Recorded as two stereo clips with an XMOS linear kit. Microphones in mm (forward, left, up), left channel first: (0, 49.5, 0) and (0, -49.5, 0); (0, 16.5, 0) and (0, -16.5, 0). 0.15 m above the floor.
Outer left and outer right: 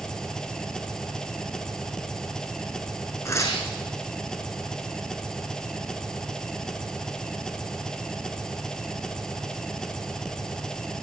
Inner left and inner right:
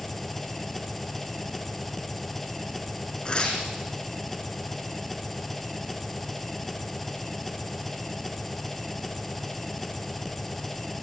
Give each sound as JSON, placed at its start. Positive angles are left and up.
{"t": 0.0, "sound": "an engine running", "side_deg": 5, "distance_m": 1.6}
{"t": 3.2, "sound": "tearing paper", "side_deg": 30, "distance_m": 5.0}